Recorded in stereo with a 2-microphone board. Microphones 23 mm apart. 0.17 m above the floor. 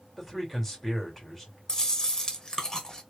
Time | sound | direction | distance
0.1 | a man speaking | 10° left (ahead or behind) | 2.5 m
1.7 | chewing | 30° left (ahead or behind) | 1.2 m